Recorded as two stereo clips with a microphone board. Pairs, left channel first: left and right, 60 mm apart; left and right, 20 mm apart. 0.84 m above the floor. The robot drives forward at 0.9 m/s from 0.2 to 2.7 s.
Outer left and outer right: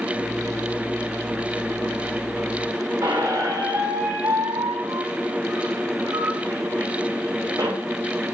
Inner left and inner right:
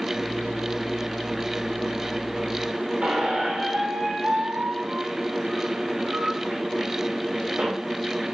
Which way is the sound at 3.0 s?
70° right (ahead or behind).